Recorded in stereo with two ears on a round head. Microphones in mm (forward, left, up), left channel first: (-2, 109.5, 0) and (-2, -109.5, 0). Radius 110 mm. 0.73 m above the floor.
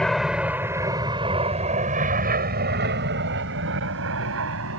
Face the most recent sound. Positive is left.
turn(degrees=-60)  # may be behind; listen again after turning